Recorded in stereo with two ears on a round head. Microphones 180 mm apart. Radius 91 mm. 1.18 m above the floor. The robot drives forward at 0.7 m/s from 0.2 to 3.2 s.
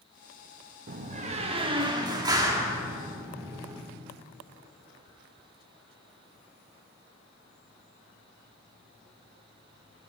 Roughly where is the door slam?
Right.